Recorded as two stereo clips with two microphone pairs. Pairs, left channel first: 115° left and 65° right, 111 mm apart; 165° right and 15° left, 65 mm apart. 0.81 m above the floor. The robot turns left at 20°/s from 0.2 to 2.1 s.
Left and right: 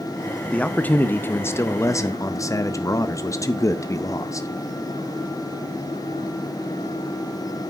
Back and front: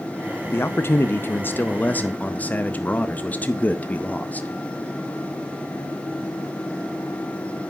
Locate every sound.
0.5 s a man speaking: straight behind, 0.5 m; by 4.5 s 145° left, 0.5 m